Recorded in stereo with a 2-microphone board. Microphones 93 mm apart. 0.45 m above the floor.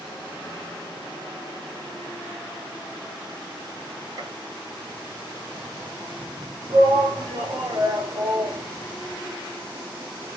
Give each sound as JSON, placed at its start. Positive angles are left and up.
{"t": 4.2, "sound": "a gunshot", "side_deg": -45, "distance_m": 2.0}
{"t": 6.7, "sound": "a shout", "side_deg": -50, "distance_m": 2.0}